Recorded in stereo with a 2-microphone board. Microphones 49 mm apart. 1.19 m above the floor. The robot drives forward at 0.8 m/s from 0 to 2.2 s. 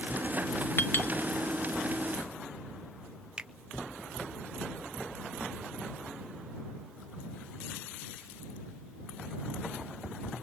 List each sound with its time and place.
0.8 s a clink: 50° left (ahead or behind), 0.7 m; by 1.1 s 35° left (ahead or behind), 1.0 m
3.4 s a finger snap: 15° right (ahead or behind), 0.7 m